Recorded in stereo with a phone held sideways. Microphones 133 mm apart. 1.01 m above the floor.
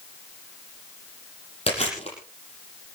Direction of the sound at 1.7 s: 50° left (ahead or behind).